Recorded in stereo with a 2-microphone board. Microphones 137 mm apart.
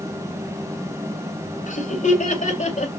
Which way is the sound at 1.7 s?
70° left (ahead or behind).